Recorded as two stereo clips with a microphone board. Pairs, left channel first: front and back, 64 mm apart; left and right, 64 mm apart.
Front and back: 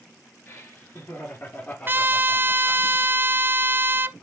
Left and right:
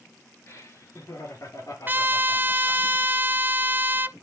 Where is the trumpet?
140° right, 0.6 m.